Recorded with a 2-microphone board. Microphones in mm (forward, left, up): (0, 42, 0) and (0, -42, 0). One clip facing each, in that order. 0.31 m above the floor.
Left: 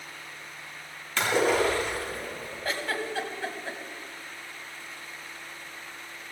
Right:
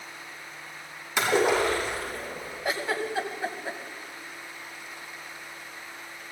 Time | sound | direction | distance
1.2 | a splash | 15° right (ahead or behind) | 8 m
2.6 | a giggle | 15° right (ahead or behind) | 2 m